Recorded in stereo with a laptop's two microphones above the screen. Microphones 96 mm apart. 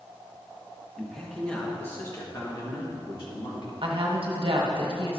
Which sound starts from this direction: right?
A woman speaking, at 3.8 s.